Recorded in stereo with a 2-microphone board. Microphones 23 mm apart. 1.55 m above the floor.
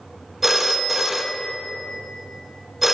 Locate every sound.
0.4 s a phone ringing: 10° right (ahead or behind), 0.9 m